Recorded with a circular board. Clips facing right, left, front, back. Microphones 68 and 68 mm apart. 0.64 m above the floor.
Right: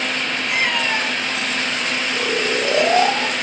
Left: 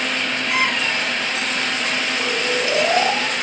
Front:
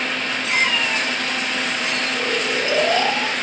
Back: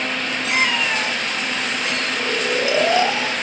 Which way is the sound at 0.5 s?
100° right.